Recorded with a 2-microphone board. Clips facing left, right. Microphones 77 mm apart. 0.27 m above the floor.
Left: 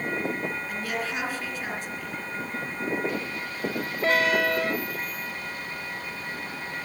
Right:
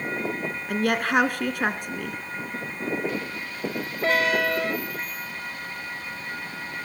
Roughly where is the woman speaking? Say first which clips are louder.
Right 7 dB; right.